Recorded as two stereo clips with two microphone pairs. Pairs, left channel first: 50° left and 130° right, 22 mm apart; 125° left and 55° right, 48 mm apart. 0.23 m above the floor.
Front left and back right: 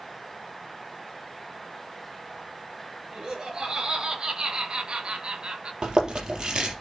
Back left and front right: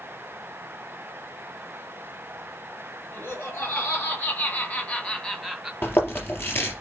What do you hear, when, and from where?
3.1 s laughter: 165° left, 4.5 m; by 5.7 s 135° right, 1.5 m
5.8 s chewing: 170° left, 3.5 m